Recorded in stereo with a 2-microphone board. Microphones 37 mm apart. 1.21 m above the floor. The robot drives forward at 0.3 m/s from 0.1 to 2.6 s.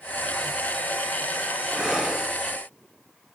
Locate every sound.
1.7 s breathing: 5° right (ahead or behind), 4.5 m